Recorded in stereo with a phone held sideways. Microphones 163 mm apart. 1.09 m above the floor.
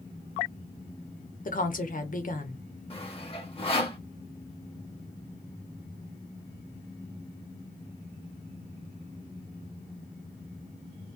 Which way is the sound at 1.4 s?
55° left (ahead or behind).